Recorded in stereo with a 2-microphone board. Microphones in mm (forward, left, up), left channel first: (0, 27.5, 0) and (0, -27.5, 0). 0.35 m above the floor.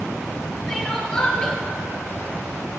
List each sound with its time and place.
0.7 s crying: 15° left (ahead or behind), 3.5 m